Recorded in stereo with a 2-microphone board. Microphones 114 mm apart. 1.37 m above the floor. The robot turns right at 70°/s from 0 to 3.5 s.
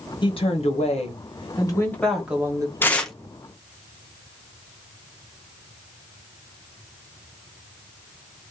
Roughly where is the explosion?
No explosion in this recording.